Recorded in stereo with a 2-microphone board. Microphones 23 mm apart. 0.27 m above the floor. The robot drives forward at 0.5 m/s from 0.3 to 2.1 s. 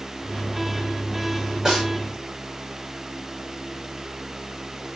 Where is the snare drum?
30° right (ahead or behind), 1.8 m.